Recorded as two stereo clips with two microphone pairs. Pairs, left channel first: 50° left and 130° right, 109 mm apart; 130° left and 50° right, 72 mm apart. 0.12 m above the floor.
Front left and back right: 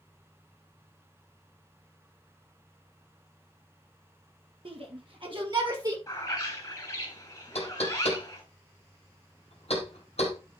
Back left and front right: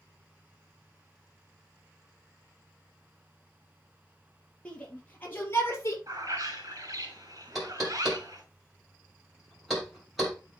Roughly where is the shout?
Behind.